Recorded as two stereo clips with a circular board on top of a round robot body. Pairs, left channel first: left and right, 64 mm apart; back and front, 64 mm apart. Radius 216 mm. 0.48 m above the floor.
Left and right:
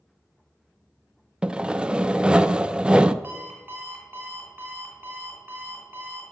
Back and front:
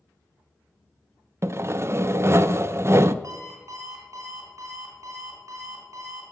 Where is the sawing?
20° right, 0.6 m.